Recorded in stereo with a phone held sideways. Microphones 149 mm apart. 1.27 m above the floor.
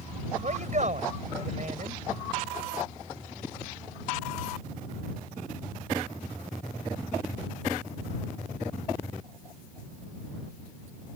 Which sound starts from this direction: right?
A man speaking, at 0.4 s.